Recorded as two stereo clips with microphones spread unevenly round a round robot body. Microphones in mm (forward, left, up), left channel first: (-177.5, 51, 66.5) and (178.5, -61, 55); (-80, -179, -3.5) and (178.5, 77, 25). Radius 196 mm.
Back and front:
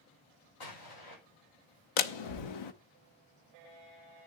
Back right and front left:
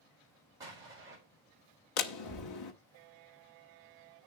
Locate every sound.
0.6 s an explosion: 130° left, 4.5 m
2.0 s a door slam: 175° right, 1.1 m